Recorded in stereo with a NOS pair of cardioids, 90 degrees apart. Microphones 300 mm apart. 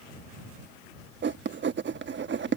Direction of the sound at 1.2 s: 40° right.